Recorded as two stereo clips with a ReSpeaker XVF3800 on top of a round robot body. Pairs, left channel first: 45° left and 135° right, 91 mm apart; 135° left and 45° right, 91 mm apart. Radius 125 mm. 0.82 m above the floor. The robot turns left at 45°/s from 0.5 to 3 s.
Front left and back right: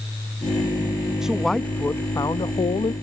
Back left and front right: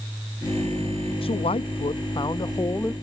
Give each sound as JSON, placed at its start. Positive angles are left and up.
{"t": 1.2, "sound": "a man speaking", "azimuth_deg": 140}